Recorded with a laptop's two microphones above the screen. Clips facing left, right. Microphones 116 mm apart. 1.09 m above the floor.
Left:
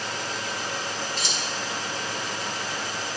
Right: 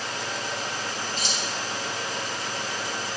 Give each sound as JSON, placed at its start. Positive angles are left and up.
{"t": 1.2, "sound": "keys jangling", "side_deg": 60, "distance_m": 2.5}